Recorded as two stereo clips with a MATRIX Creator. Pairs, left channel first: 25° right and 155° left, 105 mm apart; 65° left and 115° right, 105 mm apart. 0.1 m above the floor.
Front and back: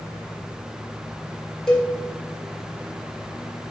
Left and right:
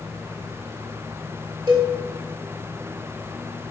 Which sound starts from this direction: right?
A cowbell, at 1.7 s.